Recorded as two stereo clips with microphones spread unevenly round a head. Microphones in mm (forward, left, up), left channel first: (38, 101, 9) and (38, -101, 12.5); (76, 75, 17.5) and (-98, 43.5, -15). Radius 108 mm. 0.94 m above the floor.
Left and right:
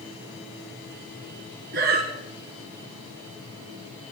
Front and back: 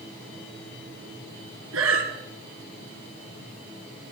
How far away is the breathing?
About 3 m.